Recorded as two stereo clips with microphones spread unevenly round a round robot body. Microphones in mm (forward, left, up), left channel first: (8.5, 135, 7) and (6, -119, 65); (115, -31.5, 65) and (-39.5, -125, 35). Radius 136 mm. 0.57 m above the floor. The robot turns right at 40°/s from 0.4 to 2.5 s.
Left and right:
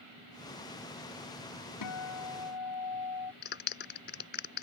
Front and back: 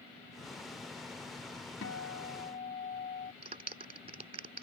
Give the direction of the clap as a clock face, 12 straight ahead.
7 o'clock.